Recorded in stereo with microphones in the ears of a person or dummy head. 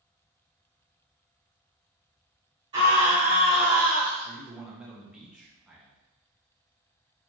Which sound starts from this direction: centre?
A man speaking, at 4.2 s.